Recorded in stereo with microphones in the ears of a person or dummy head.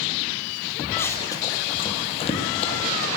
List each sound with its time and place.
1.0 s running footsteps: 15° left (ahead or behind), 3 m; by 3.1 s 40° left (ahead or behind), 4 m